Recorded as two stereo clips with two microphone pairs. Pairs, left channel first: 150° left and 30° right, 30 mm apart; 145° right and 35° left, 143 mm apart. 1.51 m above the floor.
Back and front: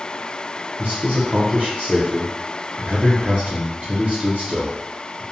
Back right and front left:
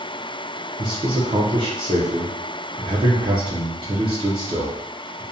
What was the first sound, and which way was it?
A man speaking, 5° right.